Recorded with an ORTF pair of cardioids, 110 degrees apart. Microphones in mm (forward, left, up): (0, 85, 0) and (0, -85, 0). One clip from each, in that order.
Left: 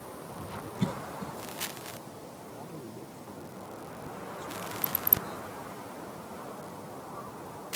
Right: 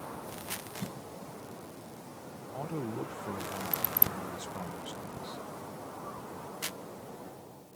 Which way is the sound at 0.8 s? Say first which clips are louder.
Left 7 dB; 50° left.